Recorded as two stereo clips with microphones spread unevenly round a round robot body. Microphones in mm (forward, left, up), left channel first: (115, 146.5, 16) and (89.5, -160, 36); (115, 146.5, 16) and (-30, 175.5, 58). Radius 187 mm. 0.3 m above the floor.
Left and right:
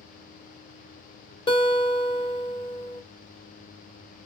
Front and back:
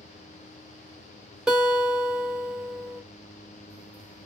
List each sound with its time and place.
1.5 s a guitar: 45° left, 1.4 m